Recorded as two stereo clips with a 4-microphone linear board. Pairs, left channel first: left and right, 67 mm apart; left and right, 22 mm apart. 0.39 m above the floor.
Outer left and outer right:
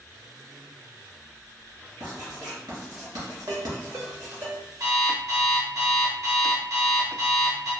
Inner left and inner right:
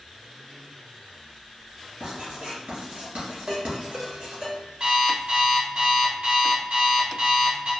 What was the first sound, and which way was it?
Writing, 85° right.